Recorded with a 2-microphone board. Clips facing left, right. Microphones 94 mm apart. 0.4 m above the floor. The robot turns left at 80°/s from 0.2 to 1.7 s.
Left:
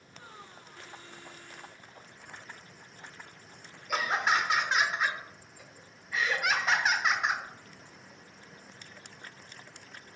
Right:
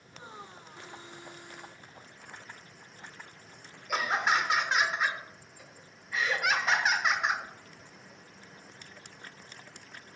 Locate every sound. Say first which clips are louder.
3.9 s laughter: even; 5° right (ahead or behind), 0.8 m